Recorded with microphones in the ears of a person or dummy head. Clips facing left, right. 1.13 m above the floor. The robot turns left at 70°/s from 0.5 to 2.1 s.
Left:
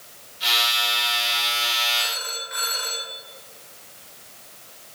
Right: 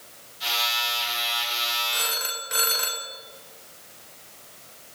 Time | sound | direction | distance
1.9 | a phone ringing | 55° right (ahead or behind) | 0.5 m